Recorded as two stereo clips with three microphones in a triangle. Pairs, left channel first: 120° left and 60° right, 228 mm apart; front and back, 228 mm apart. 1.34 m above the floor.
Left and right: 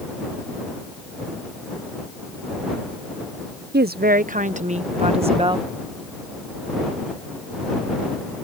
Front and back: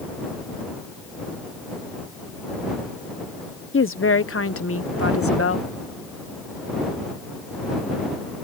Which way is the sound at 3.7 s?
20° right.